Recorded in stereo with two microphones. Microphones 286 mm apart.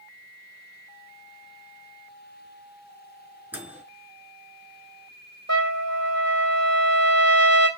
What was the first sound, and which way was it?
A microwave, 5° right (ahead or behind).